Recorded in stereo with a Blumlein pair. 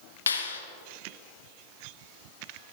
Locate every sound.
0.3 s a clap: 70° left, 1.2 m